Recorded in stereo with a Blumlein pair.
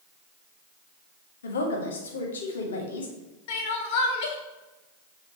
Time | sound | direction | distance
1.4 | a woman speaking | 65° left | 1.3 m
3.5 | crying | 45° left | 1.0 m